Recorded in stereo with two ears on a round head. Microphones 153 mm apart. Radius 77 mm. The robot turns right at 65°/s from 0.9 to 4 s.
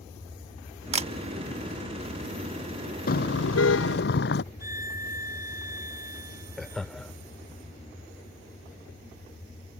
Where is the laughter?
Centre (ahead or behind).